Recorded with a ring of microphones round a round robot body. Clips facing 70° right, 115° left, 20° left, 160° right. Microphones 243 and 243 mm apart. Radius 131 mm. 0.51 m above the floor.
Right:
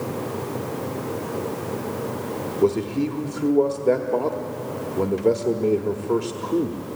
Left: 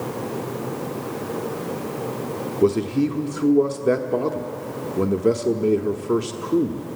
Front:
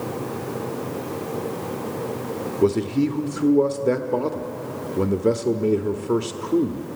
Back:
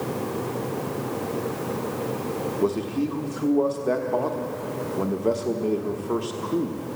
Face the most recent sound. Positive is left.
turn(degrees=55)